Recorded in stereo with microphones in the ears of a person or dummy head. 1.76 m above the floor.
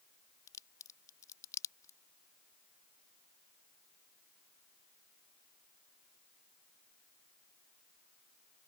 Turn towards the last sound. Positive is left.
turn(degrees=30)  # may be behind; listen again after turning